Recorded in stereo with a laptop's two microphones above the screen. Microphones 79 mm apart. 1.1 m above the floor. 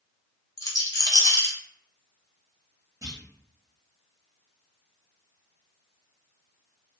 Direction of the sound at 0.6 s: 45° left (ahead or behind).